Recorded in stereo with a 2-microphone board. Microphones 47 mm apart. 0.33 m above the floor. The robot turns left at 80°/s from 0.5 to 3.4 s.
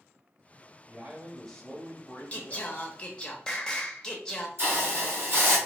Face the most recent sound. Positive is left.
turn(degrees=-55)  # may be behind; listen again after turning